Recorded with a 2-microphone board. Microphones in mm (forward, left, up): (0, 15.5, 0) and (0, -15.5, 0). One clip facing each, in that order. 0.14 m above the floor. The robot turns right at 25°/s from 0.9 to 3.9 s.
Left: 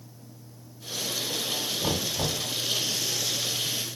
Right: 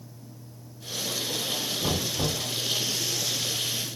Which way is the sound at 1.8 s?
30° left (ahead or behind).